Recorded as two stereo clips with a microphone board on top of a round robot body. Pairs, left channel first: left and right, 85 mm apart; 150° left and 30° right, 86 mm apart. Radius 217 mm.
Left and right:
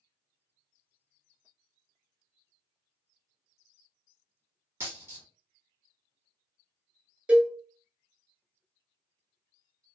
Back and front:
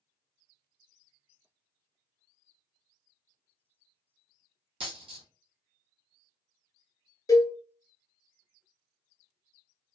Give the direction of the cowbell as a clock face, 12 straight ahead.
5 o'clock.